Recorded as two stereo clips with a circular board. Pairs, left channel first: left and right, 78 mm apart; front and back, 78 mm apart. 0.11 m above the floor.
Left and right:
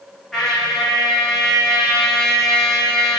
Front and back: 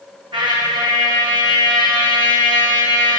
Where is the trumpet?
175° left, 1.8 m.